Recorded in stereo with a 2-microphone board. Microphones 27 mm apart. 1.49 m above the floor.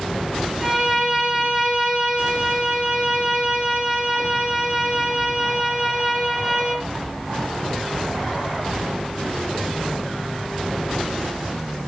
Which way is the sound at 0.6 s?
20° right (ahead or behind).